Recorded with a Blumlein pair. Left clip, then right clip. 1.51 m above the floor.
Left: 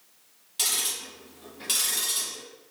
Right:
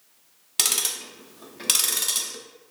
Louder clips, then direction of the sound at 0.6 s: Right 3 dB; 30° right.